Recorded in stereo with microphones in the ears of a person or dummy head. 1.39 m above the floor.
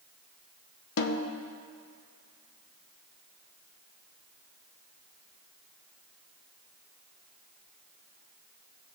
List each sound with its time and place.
1.0 s a snare drum: 75° left (ahead or behind), 0.8 m